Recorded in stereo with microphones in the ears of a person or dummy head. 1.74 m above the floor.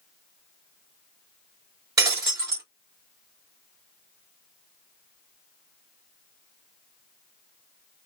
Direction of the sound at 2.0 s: 20° right (ahead or behind).